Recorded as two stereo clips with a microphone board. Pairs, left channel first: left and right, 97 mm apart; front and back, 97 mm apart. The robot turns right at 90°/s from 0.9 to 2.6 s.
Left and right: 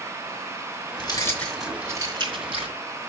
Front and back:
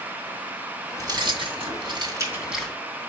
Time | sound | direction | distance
1.0 | keys jangling | 125° left | 2 m